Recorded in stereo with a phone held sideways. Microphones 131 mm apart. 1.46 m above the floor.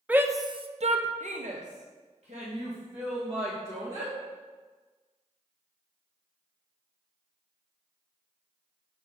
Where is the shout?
10° right (ahead or behind), 0.6 m; by 4.1 s 50° right (ahead or behind), 2.5 m.